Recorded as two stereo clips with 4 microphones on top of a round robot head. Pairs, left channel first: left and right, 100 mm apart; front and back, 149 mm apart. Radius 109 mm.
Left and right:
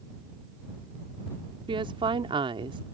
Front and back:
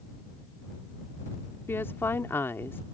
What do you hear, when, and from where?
1.7 s a woman speaking: 75° right